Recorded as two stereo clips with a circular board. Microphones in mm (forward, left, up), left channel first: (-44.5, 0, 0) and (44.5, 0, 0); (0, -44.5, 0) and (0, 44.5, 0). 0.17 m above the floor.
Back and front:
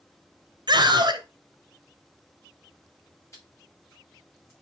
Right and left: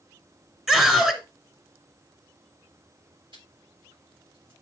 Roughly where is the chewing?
Behind left.